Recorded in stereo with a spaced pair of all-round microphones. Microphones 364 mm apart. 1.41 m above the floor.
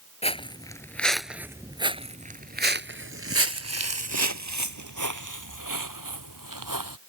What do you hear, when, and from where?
0.2 s footsteps: 15° left (ahead or behind); by 7.0 s 65° right (ahead or behind)